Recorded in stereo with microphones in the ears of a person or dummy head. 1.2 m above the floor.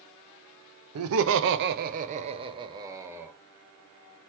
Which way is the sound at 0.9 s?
85° right.